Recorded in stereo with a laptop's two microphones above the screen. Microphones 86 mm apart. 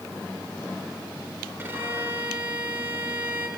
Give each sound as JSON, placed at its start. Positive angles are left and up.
{"t": 1.6, "sound": "a violin", "side_deg": -25, "distance_m": 2.5}